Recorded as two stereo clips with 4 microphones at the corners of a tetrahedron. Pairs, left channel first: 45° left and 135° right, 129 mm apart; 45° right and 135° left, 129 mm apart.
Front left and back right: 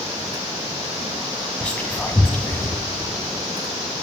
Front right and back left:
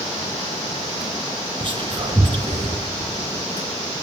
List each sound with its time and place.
1.6 s whispering: 120° left, 1.8 m